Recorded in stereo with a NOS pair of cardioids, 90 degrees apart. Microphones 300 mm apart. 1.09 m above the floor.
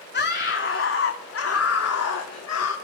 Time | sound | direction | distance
0.1 | a scream | 35° left | 2.5 m